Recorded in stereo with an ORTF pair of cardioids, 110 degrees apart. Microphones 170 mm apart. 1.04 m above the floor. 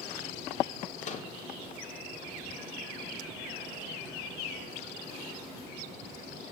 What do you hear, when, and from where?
1.0 s a microwave: 40° left, 2 m